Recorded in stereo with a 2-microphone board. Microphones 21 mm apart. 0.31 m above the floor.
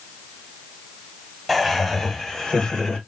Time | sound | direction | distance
1.5 | laughter | 5° left (ahead or behind) | 1.1 m